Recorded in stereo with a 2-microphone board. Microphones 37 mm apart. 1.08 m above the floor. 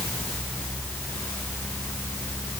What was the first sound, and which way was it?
Only background noise.